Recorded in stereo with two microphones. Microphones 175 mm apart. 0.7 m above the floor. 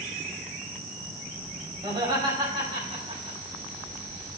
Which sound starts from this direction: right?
Laughter, at 1.8 s.